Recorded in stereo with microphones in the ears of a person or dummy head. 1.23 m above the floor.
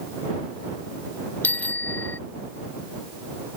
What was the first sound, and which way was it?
A bicycle bell, 15° left (ahead or behind).